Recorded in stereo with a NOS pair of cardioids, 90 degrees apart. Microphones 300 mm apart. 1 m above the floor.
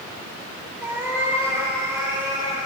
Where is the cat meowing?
5° right, 4.5 m; by 2.7 s 15° right, 6 m.